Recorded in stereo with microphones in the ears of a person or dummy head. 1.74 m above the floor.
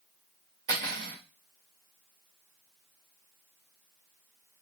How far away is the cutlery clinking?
About 1.8 m.